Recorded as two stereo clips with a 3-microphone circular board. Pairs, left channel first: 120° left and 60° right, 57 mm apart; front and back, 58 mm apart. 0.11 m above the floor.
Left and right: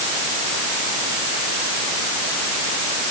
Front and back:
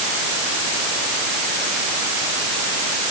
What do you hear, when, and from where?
Only background noise.